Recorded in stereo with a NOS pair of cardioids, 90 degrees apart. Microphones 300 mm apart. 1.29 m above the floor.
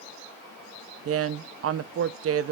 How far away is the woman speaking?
About 0.7 m.